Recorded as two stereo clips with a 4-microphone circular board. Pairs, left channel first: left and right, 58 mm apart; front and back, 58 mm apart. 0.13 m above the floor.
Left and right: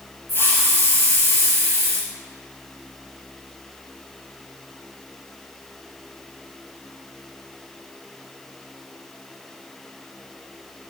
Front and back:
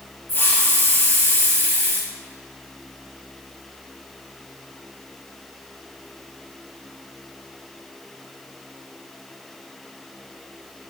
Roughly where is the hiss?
Ahead left.